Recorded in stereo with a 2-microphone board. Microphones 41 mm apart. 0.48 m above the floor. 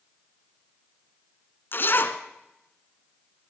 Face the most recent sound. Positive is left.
turn(degrees=50)  # may be behind; listen again after turning